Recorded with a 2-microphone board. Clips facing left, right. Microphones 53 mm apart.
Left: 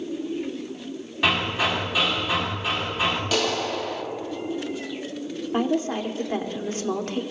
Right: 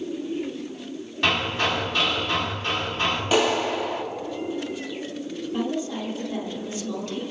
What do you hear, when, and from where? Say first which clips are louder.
1.2 s hammering: even; 5° left (ahead or behind), 4 m
3.3 s a clap: right 3 dB; 20° right (ahead or behind), 1.7 m
5.5 s a woman speaking: left 4 dB; 50° left (ahead or behind), 2 m